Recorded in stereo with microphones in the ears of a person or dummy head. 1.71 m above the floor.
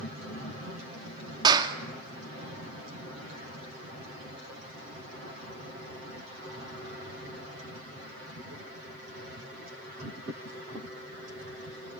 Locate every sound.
1.4 s a clap: 25° right (ahead or behind), 2 m